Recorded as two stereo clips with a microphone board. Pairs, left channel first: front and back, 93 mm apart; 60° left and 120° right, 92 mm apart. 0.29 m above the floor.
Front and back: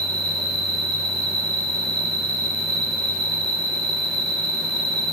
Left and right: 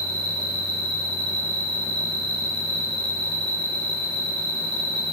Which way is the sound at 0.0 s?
70° right.